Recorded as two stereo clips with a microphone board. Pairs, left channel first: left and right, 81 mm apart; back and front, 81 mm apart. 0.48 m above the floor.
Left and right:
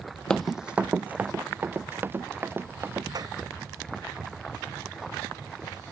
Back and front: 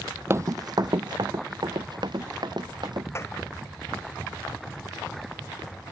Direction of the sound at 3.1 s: 125° right.